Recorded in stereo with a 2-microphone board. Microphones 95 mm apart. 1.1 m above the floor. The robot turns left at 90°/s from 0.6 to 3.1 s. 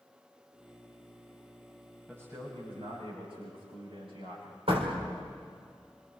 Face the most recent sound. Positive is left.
turn(degrees=-85)